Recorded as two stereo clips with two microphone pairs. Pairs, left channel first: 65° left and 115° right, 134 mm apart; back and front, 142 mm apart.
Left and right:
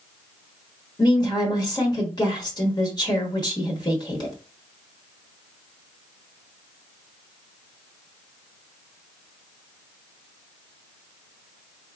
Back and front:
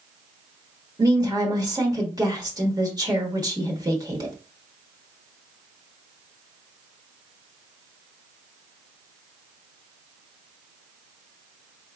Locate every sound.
1.0 s a woman speaking: 40° left, 1.1 m